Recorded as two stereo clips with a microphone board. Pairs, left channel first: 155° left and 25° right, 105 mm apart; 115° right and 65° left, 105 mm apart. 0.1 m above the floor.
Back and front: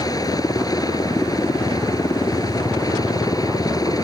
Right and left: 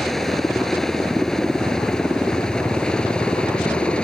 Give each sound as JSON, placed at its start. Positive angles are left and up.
{"t": 0.0, "sound": "a helicopter", "azimuth_deg": 160}